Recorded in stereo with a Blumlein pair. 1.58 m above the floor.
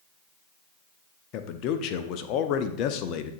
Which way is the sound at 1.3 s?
40° left.